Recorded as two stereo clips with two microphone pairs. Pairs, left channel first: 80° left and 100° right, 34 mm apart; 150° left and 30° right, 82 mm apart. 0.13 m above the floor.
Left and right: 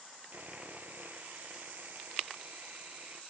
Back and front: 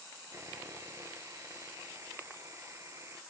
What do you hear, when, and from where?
0.3 s sawing: 80° right, 0.7 m